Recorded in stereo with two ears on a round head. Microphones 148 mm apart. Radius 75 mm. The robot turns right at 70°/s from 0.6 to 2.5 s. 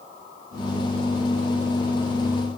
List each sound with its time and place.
Only background noise.